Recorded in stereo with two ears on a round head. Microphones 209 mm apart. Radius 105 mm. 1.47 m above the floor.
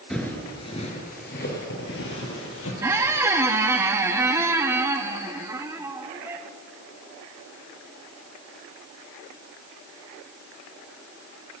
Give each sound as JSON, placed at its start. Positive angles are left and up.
{"t": 0.1, "sound": "footsteps", "side_deg": 5, "distance_m": 1.6}
{"t": 2.8, "sound": "a squeak", "side_deg": -10, "distance_m": 0.6}